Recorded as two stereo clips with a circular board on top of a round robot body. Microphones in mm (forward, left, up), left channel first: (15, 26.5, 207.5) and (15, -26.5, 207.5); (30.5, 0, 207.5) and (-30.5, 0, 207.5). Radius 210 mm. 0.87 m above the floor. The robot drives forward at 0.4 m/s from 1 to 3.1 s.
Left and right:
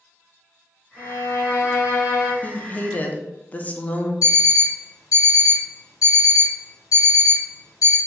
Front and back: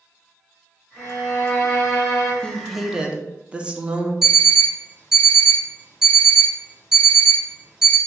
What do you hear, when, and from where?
1.0 s a violin: 65° left, 1.7 m; by 2.3 s 85° left, 1.6 m
2.4 s a woman speaking: 60° left, 0.7 m; by 4.1 s 125° left, 0.7 m
4.2 s an alarm clock: 100° left, 0.9 m